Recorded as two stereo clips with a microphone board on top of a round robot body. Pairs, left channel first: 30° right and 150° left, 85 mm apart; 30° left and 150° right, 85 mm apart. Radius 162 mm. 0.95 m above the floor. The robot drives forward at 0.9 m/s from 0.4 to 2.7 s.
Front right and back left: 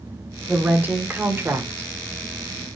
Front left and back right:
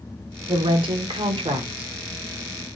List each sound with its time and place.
0.5 s a woman speaking: 135° right, 2.5 m; by 1.9 s 150° right, 3.5 m